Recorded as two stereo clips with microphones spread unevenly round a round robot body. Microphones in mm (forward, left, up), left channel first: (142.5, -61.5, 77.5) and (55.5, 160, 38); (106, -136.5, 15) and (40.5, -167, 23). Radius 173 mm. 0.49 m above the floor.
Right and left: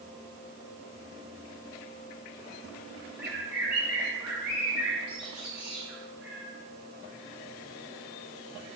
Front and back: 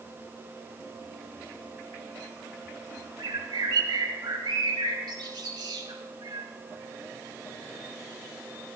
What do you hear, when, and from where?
3.2 s a bird: 165° right, 2.5 m